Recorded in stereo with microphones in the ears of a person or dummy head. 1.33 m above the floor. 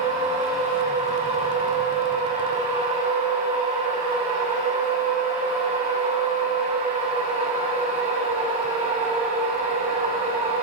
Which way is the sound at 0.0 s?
30° right (ahead or behind).